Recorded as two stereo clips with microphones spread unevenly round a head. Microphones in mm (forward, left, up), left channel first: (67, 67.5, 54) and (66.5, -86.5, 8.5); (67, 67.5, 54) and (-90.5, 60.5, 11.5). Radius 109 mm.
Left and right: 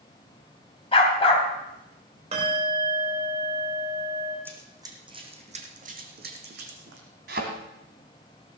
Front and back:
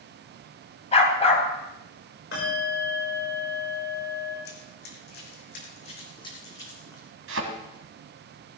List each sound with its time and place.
0.9 s a dog barking: 45° left, 3 m
2.3 s a bell: 40° right, 6 m
4.5 s running footsteps: 5° right, 3.5 m; by 7.1 s 80° right, 4 m
7.3 s a thud: 145° right, 2 m